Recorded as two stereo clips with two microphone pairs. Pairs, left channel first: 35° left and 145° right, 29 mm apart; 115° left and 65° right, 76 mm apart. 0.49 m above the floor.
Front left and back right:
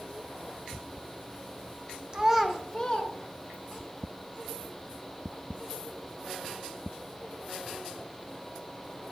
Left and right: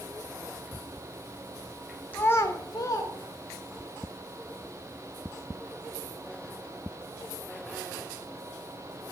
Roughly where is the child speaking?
Behind.